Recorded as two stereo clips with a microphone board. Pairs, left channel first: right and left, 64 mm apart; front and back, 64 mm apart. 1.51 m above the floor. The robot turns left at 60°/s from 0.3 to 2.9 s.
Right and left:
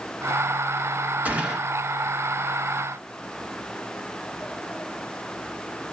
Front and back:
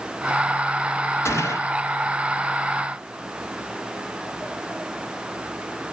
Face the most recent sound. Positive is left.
turn(degrees=-70)